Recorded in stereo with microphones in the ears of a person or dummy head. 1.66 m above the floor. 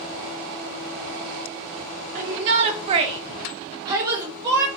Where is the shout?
35° right (ahead or behind), 0.6 m; by 4.7 s 15° right (ahead or behind), 1.3 m.